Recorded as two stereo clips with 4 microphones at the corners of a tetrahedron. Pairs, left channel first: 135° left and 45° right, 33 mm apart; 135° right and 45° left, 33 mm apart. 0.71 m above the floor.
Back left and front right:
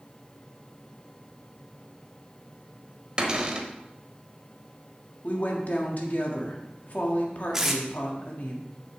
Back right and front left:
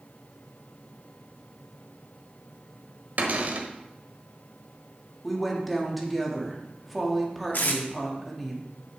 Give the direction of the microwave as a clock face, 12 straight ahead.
I don't hear a microwave.